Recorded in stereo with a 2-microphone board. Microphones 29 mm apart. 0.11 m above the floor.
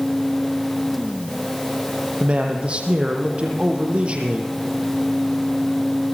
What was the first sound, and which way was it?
A man speaking, 45° right (ahead or behind).